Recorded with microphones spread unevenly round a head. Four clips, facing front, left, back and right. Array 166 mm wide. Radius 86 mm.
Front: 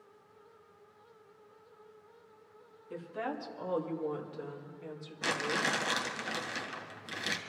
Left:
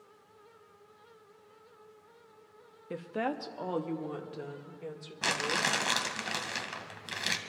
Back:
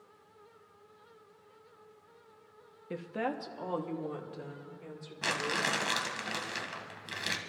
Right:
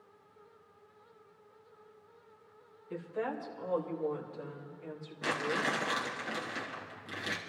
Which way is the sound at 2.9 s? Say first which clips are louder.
Left 3 dB, back 3 dB; 130° left.